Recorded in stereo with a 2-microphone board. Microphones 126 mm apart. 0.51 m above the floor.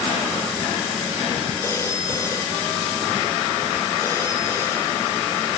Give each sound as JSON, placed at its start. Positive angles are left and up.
{"t": 1.6, "sound": "a phone ringing", "side_deg": 25}